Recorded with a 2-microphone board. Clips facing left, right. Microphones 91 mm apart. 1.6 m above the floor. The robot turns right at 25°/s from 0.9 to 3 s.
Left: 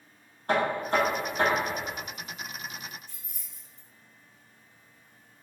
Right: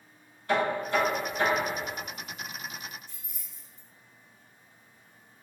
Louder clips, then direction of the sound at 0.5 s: Left 1 dB; 45° left (ahead or behind).